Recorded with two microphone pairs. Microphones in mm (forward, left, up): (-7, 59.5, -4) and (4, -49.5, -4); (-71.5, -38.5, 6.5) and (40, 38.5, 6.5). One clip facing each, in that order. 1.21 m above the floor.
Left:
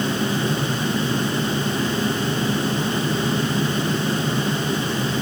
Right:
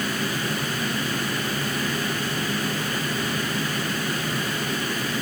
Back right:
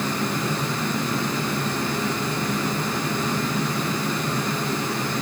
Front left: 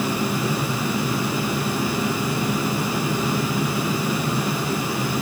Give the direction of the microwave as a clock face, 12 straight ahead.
No microwave in this recording.